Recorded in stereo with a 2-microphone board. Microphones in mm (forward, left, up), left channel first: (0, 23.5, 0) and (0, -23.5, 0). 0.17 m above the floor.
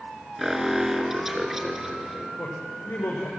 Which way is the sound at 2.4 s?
80° left.